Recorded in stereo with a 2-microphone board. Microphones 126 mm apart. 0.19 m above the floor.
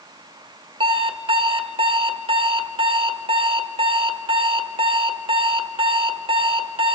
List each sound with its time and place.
0.8 s an alarm clock: 45° right (ahead or behind), 1.2 m